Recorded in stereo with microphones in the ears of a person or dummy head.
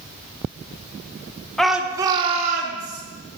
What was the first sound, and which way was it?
A shout, 5° left (ahead or behind).